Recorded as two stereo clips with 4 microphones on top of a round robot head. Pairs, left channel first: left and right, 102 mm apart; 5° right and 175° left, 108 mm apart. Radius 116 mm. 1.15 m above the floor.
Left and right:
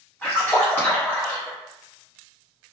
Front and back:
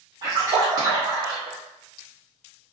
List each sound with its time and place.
0.2 s a splash: 150° left, 0.5 m